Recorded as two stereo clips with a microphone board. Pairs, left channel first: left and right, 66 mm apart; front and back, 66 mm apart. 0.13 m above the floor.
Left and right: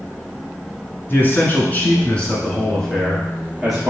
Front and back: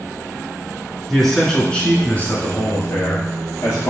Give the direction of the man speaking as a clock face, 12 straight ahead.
9 o'clock.